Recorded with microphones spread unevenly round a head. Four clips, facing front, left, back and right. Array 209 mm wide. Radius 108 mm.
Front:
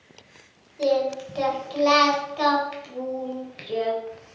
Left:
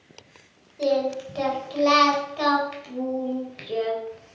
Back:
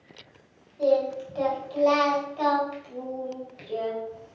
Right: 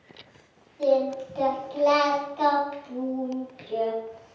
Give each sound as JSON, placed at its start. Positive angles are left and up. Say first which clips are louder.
{"t": 0.8, "sound": "singing", "louder": "right 1 dB, even", "azimuth_deg": 45, "distance_m": 3.5}